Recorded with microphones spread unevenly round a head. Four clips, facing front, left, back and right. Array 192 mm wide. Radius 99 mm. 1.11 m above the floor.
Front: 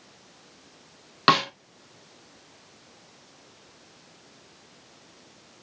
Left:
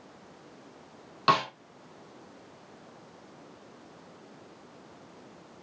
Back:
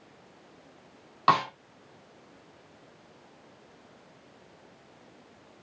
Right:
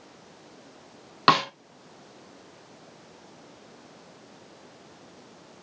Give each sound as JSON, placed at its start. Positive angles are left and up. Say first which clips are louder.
{"t": 1.3, "sound": "a snare drum", "louder": "right 4 dB, front 2 dB", "azimuth_deg": -55, "distance_m": 1.3}